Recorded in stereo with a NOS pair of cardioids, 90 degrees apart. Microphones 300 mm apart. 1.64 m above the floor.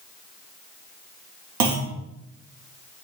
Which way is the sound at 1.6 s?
70° right.